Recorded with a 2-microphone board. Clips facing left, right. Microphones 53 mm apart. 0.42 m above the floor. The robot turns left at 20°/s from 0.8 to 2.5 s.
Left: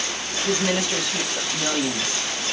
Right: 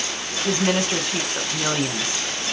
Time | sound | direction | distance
0.5 | a woman speaking | 40° right (ahead or behind) | 1.2 m